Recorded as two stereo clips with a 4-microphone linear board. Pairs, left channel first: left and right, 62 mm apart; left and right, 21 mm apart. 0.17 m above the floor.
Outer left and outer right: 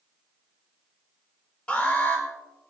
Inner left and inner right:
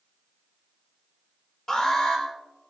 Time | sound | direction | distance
1.7 | an alarm | 20° left (ahead or behind) | 5 m